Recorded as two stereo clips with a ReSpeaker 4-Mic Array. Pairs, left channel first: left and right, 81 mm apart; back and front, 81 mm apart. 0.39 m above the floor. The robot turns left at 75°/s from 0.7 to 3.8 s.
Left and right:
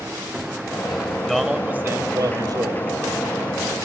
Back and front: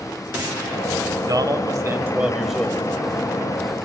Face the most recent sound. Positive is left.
turn(degrees=175)